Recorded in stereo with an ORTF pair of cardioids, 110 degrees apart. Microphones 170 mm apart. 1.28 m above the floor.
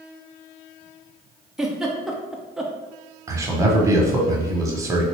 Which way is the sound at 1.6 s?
5° right.